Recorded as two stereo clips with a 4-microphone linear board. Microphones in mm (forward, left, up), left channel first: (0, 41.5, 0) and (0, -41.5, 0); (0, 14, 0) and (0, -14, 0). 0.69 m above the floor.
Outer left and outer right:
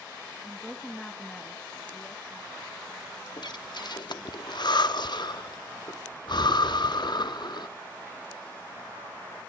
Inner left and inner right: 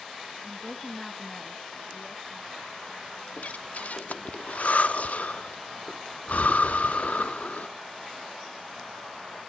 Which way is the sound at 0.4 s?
Centre (ahead or behind).